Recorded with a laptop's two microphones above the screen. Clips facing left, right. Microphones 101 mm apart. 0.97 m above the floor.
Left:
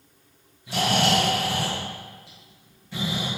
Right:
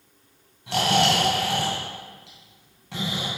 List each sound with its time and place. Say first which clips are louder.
0.7 s snoring: right 1 dB; 80° right, 3 m